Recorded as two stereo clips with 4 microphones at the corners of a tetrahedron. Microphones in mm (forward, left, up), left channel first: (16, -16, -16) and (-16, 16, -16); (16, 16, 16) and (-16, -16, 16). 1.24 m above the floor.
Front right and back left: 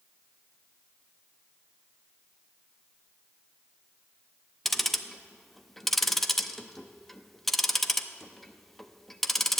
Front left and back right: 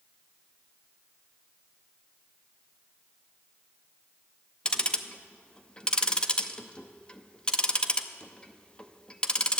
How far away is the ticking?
About 0.6 m.